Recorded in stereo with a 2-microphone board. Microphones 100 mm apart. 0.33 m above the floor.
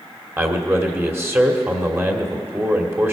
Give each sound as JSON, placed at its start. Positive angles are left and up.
{"t": 0.4, "sound": "a man speaking", "side_deg": -25, "distance_m": 1.3}